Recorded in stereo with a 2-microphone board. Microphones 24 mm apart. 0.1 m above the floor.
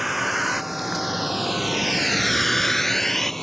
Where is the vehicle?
10° right (ahead or behind); by 3.4 s 15° left (ahead or behind).